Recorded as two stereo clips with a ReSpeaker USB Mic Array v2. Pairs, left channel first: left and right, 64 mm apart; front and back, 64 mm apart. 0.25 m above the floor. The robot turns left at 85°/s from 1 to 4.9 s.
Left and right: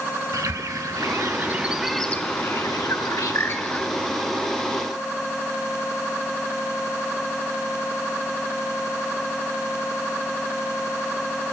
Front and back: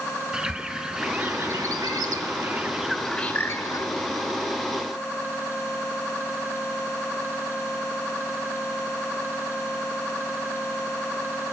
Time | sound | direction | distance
0.3 | a bird | 105° right | 0.5 m